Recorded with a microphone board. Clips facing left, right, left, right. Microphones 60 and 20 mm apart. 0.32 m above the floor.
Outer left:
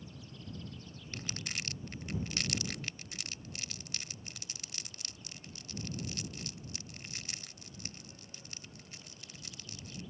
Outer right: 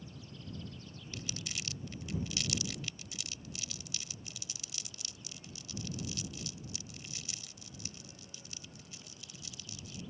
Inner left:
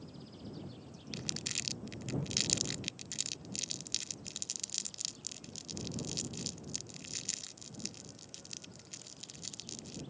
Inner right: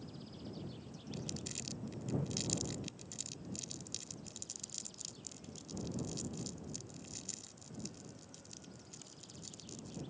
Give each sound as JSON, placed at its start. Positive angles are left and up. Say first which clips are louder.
{"t": 1.1, "sound": "crumpling", "louder": "outer left 2 dB, inner left 7 dB", "side_deg": 45}